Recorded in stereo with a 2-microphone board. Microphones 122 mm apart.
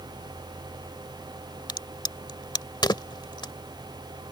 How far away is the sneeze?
No sneeze in this recording.